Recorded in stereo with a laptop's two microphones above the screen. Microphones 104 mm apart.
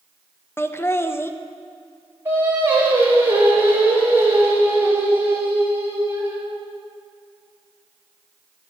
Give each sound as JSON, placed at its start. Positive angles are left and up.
{"t": 0.6, "sound": "laughter", "side_deg": 25, "distance_m": 0.5}
{"t": 2.2, "sound": "singing", "side_deg": -25, "distance_m": 3.0}